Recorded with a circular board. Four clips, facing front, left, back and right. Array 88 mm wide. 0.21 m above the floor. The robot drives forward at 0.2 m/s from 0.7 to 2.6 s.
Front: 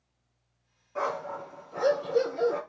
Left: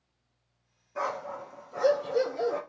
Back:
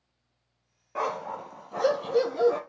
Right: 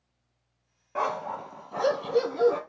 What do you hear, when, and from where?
0.9 s a dog barking: 125° right, 1.2 m; by 2.6 s 135° right, 1.4 m